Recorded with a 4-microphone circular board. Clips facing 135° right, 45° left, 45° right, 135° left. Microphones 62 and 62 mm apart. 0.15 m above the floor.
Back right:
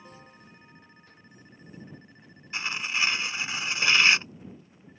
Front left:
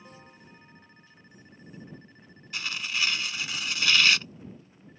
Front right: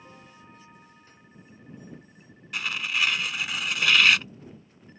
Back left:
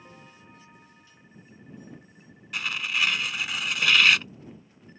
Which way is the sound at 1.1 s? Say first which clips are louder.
Back right 2 dB, front right 2 dB; 95° right.